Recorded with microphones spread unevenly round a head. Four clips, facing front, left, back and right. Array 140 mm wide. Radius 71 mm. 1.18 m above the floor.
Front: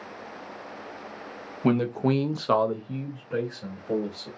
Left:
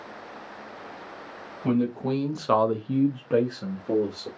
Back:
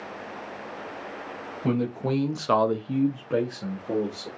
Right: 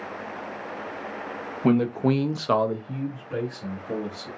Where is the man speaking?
60° right, 1.0 m; by 4.3 s 125° left, 1.5 m.